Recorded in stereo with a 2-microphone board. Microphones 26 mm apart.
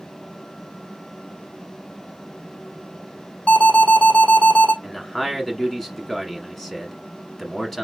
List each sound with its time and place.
3.5 s an alarm: 70° left (ahead or behind), 3.5 m
4.8 s a man speaking: 10° left (ahead or behind), 1.3 m